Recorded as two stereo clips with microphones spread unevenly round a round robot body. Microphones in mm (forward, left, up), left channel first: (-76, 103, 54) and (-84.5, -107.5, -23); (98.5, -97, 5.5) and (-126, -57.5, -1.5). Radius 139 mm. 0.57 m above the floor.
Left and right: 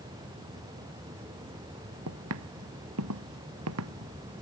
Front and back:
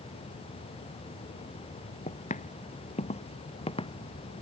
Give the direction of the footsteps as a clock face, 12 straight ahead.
2 o'clock.